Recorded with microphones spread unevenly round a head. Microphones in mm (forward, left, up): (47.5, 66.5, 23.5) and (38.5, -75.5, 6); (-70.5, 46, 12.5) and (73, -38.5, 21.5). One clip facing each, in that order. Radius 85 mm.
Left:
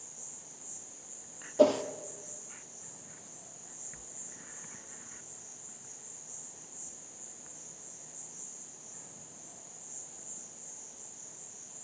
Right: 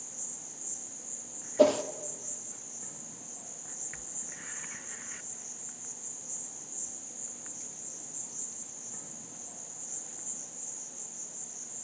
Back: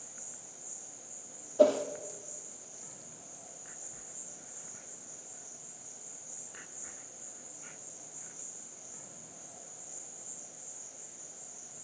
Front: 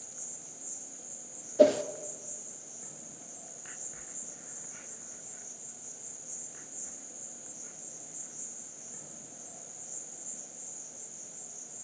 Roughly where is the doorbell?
No doorbell in this recording.